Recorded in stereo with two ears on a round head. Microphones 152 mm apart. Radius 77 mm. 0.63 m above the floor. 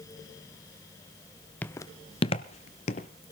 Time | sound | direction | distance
1.6 | footsteps | 10° left (ahead or behind) | 0.6 m